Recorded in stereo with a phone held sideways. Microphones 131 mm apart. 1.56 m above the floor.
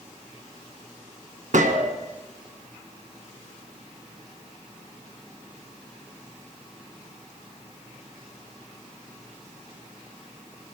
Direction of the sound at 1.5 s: 70° right (ahead or behind).